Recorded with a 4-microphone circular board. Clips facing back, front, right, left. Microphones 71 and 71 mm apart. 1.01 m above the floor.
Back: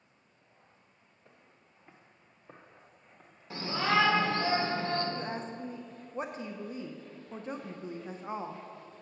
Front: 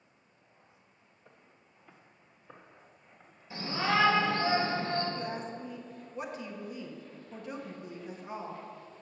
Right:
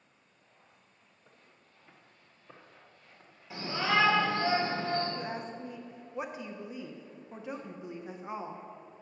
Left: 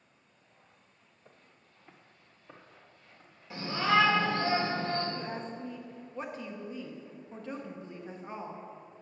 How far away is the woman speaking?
About 0.6 m.